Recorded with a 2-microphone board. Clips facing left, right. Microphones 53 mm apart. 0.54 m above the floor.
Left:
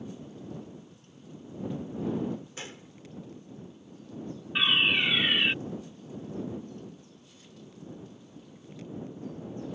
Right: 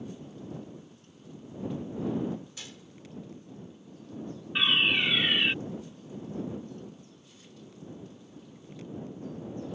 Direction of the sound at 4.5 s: 5° left (ahead or behind).